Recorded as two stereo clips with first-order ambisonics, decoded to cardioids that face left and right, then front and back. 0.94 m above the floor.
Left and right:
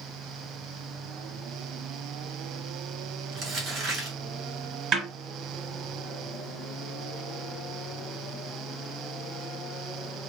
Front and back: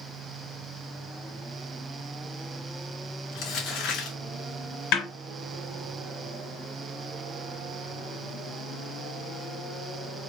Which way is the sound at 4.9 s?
30° right.